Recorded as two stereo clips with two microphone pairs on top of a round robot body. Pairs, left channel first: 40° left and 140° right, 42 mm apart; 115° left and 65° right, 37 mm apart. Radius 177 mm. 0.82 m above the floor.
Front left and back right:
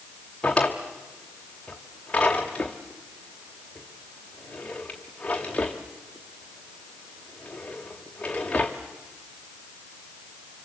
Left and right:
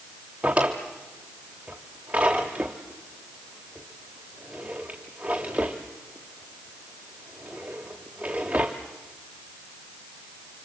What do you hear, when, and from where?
0.4 s a drawer: 10° right, 0.6 m